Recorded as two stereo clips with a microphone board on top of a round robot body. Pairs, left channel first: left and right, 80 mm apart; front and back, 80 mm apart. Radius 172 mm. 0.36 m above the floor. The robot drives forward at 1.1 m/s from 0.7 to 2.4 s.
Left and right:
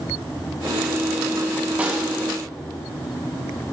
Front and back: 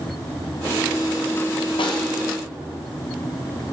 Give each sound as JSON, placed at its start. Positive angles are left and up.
{"t": 1.8, "sound": "a snare drum", "azimuth_deg": -15, "distance_m": 1.1}